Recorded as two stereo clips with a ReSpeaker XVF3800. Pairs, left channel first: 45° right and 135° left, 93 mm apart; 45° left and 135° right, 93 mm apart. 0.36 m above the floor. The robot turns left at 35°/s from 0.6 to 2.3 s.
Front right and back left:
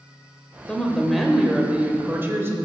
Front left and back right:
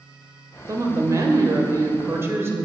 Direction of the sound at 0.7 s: 120° right.